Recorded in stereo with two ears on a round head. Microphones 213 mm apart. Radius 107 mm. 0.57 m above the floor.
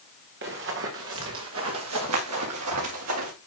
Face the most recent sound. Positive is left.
turn(degrees=-75)  # may be behind; listen again after turning